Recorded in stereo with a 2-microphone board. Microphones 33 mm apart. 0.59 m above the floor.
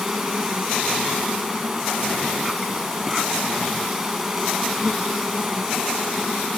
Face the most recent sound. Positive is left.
turn(degrees=-10)  # may be behind; listen again after turning